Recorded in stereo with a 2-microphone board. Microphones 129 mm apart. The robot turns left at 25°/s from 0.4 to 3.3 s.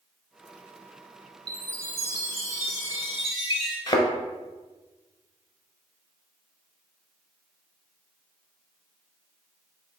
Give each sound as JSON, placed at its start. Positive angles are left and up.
{"t": 1.5, "sound": "a chime", "azimuth_deg": 165, "distance_m": 1.2}
{"t": 3.9, "sound": "a thud", "side_deg": 40, "distance_m": 0.8}